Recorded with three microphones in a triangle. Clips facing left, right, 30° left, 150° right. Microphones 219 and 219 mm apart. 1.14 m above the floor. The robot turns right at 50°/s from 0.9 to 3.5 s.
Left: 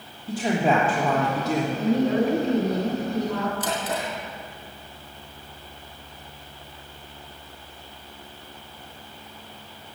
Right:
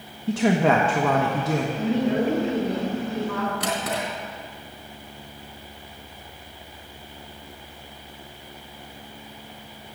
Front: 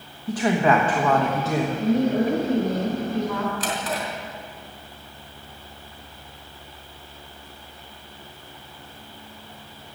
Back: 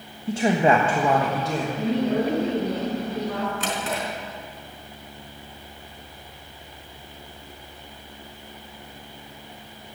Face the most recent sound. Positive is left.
turn(degrees=-85)